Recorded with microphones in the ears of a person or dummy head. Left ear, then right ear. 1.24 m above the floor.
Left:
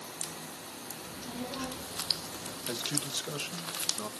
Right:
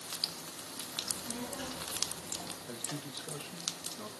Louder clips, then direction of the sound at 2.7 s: Left 8 dB; 75° left (ahead or behind).